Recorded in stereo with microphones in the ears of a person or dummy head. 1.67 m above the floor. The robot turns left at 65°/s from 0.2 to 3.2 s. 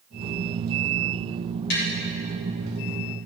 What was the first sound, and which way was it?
Tapping, 65° left (ahead or behind).